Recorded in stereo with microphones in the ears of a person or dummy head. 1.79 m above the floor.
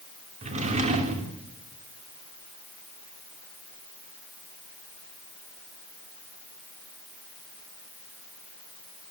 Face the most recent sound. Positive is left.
turn(degrees=-30)  # may be behind; listen again after turning